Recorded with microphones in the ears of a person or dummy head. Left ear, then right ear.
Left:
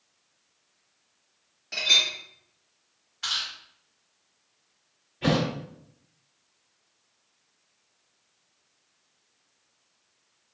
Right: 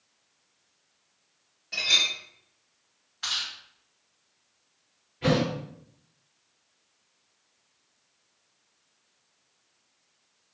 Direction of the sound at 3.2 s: 10° right (ahead or behind).